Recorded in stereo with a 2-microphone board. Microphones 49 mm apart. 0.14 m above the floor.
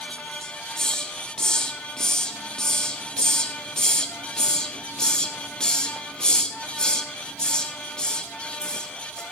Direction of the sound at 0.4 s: 20° left (ahead or behind).